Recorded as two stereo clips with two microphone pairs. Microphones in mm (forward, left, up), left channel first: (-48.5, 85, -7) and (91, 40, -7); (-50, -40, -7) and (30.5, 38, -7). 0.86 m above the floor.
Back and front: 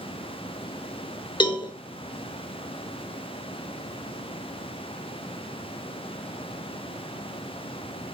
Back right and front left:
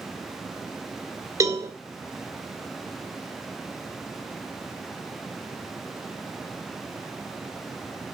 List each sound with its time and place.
1.4 s a cowbell: 105° left, 1.8 m